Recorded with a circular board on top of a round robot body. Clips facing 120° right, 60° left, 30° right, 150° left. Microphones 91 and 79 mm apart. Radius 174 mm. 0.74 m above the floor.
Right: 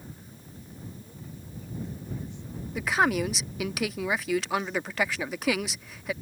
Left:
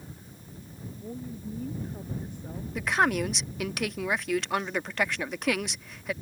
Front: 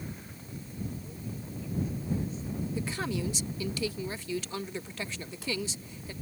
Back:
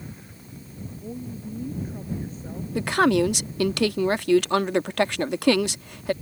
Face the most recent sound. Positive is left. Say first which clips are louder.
# right 1 dB, back 17 dB
turn(degrees=150)